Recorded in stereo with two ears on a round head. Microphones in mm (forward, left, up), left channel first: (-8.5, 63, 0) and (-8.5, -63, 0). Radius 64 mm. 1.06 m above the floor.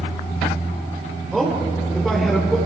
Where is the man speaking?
Centre (ahead or behind), 2.5 m.